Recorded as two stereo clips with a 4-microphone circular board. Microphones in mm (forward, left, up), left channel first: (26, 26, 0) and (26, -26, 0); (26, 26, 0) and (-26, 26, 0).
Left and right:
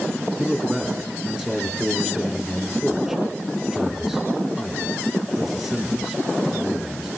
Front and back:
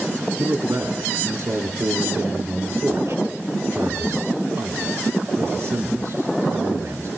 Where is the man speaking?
170° right, 3 m.